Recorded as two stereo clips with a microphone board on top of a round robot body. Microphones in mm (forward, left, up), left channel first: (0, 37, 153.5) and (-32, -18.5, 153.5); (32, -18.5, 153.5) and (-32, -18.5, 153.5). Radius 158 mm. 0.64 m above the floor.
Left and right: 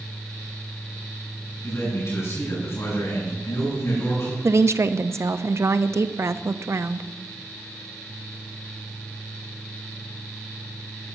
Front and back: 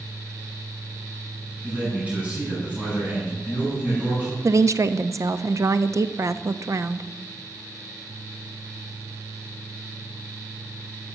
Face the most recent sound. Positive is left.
turn(degrees=-155)